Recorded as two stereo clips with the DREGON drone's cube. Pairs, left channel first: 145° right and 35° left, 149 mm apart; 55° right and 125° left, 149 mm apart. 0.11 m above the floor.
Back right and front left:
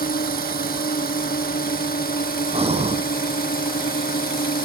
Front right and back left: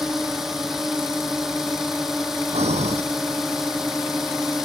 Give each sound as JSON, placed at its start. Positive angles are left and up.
{"t": 0.0, "sound": "a drone", "azimuth_deg": -150}
{"t": 2.5, "sound": "breathing", "azimuth_deg": 80}